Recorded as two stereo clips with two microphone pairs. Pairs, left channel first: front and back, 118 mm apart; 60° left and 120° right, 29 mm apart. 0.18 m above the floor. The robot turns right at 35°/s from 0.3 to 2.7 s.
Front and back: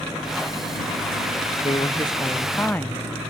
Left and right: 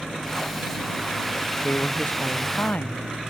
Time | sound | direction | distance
1.6 | a woman speaking | 40° left | ?